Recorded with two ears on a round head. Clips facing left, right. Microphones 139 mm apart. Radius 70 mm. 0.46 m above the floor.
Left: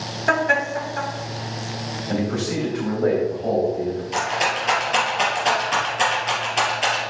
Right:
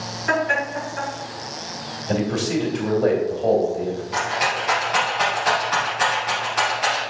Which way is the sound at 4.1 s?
30° left (ahead or behind).